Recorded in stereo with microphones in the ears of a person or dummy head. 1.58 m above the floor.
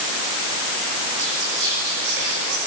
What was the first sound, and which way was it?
Whispering, 80° right.